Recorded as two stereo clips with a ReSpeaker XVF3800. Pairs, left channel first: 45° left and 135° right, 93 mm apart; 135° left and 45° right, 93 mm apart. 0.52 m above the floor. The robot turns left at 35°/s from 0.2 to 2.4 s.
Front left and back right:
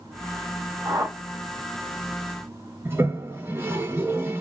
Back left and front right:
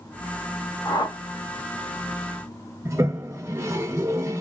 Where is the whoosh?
Straight behind, 2 m; by 1.2 s 170° left, 2 m.